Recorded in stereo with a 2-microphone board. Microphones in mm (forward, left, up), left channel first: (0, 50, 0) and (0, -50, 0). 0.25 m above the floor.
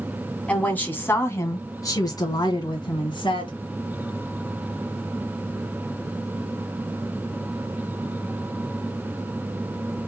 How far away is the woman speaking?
About 1.8 m.